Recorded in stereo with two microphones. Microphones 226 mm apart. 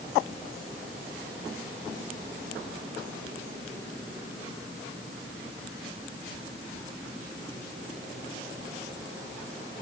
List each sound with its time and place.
Only background noise.